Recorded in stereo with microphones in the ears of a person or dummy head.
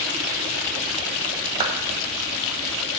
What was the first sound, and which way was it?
A clap, 30° right (ahead or behind).